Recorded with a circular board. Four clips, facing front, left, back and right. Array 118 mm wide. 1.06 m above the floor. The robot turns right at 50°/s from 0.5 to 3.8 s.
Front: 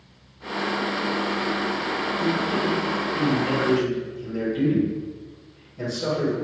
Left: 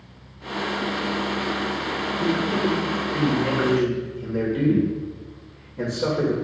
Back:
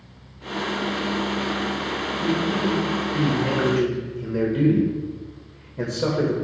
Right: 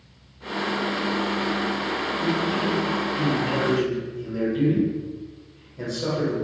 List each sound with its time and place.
2.2 s a man speaking: 70° left, 3 m; by 6.3 s 150° left, 3 m